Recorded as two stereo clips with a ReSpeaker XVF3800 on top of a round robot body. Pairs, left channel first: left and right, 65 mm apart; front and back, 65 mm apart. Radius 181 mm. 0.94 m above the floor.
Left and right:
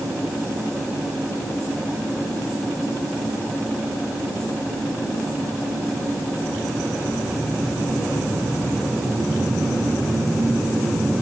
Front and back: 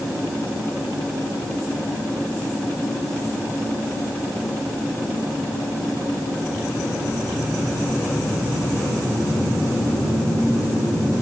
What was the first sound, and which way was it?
Only background noise.